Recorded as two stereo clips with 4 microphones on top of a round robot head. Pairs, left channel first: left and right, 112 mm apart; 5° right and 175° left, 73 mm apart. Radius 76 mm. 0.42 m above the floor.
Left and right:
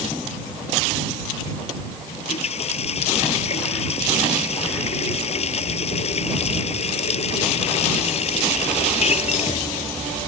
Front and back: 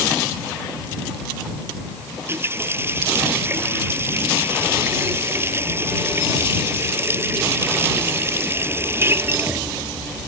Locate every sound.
2.1 s a running tap: 120° left